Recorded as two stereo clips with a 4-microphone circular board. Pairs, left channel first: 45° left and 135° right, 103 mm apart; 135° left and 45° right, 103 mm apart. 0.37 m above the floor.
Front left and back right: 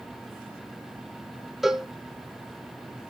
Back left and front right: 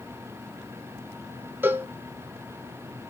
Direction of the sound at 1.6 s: 55° right.